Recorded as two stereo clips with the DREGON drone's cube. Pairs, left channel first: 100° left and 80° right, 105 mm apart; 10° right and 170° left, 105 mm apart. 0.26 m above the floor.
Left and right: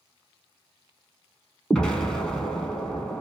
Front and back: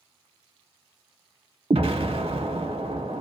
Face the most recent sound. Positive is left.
turn(degrees=180)